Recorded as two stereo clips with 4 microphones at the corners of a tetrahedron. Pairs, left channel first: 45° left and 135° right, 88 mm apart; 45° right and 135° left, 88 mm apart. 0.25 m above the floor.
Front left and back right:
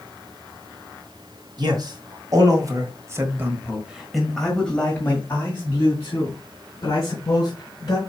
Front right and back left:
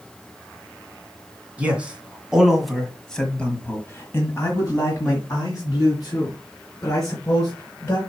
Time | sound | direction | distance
1.6 | a man speaking | 155° right | 2.5 m